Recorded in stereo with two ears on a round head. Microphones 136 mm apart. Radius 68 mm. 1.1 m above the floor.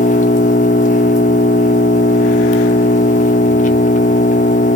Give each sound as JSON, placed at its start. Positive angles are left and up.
{"t": 0.0, "sound": "an engine running", "side_deg": 55, "distance_m": 1.4}